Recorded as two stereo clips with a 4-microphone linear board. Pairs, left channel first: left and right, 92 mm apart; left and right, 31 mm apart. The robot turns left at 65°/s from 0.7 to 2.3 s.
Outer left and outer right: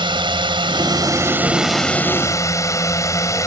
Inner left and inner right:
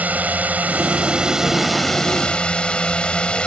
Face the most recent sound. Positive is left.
turn(degrees=145)